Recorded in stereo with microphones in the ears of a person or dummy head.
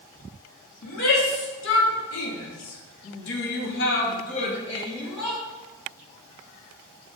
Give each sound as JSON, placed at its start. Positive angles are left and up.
{"t": 0.8, "sound": "a shout", "side_deg": 65, "distance_m": 2.0}